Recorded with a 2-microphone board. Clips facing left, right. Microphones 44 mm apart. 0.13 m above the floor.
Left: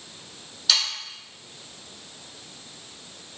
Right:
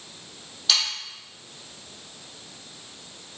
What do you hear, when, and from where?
0.7 s sawing: 5° right (ahead or behind), 2.0 m